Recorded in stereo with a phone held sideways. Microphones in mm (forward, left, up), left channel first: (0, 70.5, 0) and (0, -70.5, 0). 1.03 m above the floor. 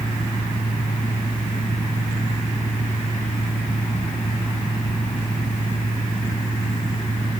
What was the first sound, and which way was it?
A fan, 80° left.